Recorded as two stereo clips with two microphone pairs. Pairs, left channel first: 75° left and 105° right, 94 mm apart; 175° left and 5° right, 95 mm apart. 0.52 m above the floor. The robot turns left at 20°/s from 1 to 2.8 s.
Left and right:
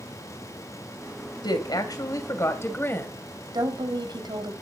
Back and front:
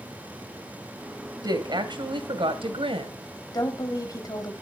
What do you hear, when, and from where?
1.4 s a woman speaking: 35° left, 2.5 m; by 3.1 s 10° left, 2.5 m
3.5 s a woman speaking: 140° right, 3 m